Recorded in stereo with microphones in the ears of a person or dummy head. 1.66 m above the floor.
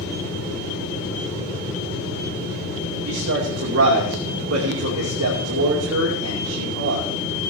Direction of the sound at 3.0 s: 90° right.